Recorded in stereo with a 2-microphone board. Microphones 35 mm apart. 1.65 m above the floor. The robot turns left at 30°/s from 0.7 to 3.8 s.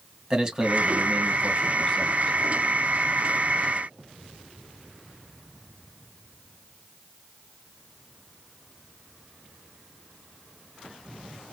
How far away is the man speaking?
About 1.7 m.